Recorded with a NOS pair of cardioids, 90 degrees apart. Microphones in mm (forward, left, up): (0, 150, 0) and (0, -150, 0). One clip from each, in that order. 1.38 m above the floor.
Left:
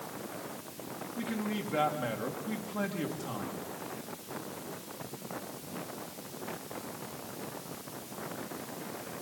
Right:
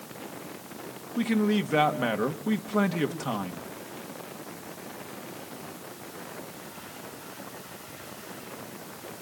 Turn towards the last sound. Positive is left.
turn(degrees=-60)